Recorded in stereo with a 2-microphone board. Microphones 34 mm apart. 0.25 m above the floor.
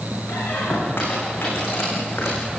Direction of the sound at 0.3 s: 85° left.